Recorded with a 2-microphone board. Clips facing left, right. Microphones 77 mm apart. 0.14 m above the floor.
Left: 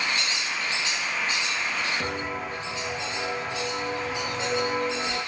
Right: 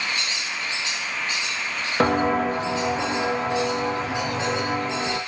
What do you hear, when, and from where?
2.0 s footsteps: 85° right, 1.1 m; by 5.2 s 75° right (ahead or behind), 3.5 m